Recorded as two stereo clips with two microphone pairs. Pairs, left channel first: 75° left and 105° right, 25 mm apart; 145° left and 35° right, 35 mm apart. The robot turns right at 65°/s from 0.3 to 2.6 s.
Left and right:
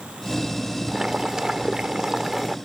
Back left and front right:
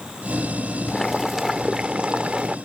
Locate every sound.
0.9 s boiling: 150° right; by 2.6 s 40° right